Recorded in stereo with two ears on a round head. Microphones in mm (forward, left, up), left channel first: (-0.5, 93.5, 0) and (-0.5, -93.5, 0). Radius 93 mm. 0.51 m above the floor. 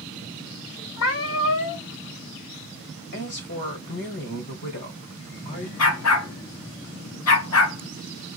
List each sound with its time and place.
1.0 s a cat meowing: 65° left (ahead or behind), 1.2 m
3.1 s a woman speaking: 55° left (ahead or behind), 1.9 m
5.8 s a dog barking: 85° left, 1.8 m